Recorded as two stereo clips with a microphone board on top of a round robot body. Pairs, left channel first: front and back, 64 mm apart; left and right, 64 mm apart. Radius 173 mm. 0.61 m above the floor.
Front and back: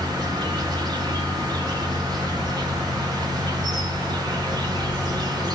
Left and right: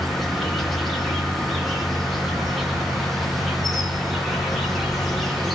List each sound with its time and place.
0.0 s an insect: straight behind, 0.8 m